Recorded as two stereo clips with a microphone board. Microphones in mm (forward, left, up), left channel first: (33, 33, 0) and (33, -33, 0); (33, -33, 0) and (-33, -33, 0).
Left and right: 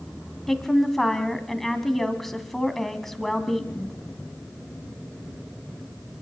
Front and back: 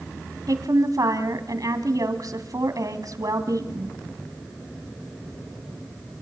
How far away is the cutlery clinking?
I don't hear cutlery clinking.